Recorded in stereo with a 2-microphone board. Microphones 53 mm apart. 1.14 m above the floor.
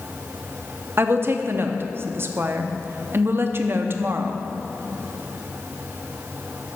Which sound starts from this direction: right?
A woman speaking, at 1.0 s.